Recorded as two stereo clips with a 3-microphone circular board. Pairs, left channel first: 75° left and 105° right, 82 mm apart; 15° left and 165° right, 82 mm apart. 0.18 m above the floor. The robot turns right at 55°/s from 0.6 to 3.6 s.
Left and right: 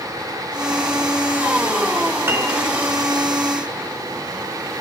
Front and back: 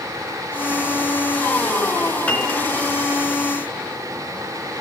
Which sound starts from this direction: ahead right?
A piano, at 2.3 s.